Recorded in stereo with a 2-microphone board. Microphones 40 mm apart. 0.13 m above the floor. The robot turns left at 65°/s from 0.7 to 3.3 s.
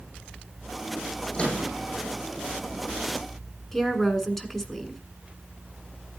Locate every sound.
1.3 s a microwave: 20° left (ahead or behind), 6.5 m; by 1.7 s 45° left (ahead or behind), 6.5 m
3.7 s a woman speaking: 10° left (ahead or behind), 1.6 m